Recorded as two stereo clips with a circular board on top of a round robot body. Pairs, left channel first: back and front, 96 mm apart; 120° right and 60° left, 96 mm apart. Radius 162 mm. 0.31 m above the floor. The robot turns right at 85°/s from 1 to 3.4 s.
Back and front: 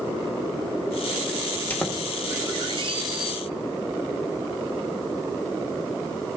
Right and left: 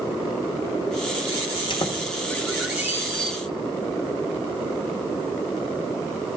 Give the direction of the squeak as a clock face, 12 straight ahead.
4 o'clock.